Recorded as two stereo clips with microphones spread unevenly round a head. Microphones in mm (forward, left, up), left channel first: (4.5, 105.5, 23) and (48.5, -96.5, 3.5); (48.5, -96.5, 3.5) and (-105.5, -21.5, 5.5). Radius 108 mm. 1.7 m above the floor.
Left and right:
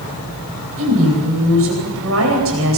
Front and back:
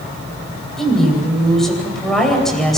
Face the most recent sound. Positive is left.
turn(degrees=-115)